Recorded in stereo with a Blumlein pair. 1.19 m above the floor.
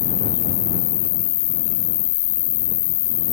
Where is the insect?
50° left.